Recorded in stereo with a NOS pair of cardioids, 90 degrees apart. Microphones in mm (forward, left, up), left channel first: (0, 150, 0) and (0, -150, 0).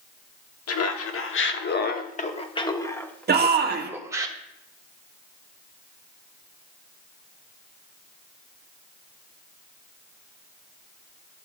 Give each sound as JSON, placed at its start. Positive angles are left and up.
{"t": 0.7, "sound": "laughter", "azimuth_deg": 60, "distance_m": 1.6}
{"t": 3.3, "sound": "a shout", "azimuth_deg": -35, "distance_m": 1.6}